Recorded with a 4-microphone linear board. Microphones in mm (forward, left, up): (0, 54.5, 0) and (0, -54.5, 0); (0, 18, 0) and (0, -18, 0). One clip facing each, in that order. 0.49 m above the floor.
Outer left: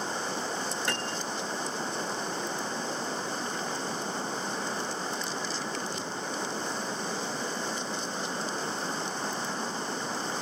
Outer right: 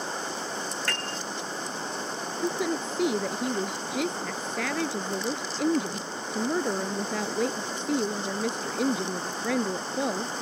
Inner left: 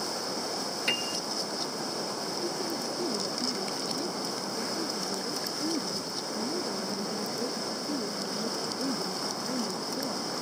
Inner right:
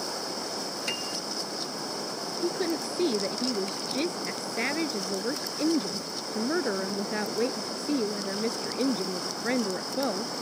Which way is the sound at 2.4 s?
85° right.